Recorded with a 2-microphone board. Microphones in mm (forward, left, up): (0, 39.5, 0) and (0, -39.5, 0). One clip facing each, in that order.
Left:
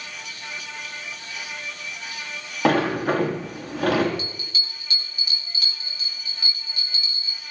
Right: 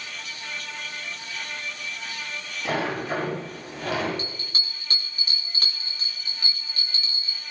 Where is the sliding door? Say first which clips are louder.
Left 7 dB; 80° left, 6.5 m.